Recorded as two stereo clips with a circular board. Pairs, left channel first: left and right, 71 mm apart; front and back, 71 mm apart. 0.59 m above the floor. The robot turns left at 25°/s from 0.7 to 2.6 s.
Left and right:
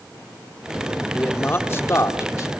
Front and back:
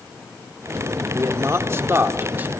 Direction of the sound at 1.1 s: 150° left.